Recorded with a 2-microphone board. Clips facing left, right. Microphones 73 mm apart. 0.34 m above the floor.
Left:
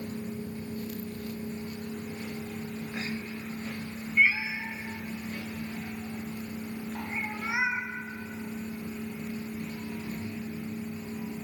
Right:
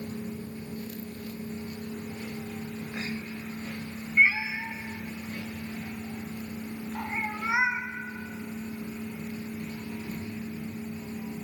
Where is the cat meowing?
30° right (ahead or behind), 1.6 m.